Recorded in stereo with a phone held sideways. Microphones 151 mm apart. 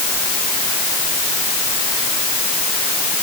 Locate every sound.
Only background noise.